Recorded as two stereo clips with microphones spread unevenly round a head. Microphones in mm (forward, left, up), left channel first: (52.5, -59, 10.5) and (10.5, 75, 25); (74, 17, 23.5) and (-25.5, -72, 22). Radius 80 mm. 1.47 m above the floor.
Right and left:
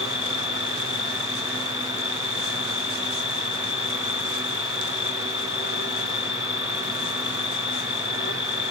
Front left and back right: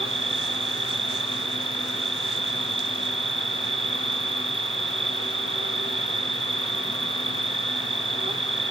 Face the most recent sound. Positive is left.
turn(degrees=-90)